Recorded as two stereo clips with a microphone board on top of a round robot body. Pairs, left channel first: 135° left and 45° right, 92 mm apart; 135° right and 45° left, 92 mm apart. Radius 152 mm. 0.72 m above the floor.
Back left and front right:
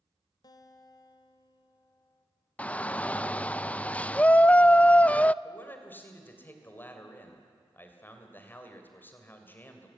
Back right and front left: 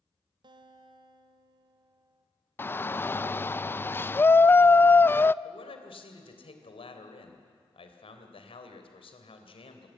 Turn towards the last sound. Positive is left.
turn(degrees=-155)